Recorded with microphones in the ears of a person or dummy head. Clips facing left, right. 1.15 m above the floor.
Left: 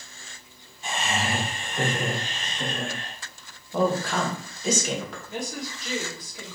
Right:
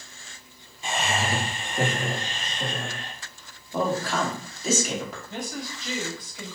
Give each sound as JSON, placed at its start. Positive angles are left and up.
{"t": 0.8, "sound": "laughter", "side_deg": -50, "distance_m": 0.7}
{"t": 3.7, "sound": "a woman speaking", "side_deg": 0, "distance_m": 0.8}
{"t": 5.3, "sound": "a woman speaking", "side_deg": 10, "distance_m": 1.7}